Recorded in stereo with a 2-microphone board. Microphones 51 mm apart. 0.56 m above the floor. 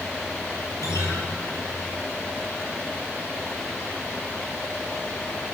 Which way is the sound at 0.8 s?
80° left.